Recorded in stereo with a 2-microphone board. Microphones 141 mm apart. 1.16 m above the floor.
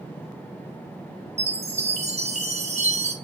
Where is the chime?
50° right (ahead or behind), 0.7 m.